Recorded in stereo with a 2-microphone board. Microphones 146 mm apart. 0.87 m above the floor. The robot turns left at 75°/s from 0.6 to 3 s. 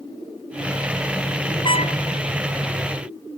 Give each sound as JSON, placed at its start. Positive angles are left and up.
{"t": 1.6, "sound": "a trumpet", "side_deg": 35}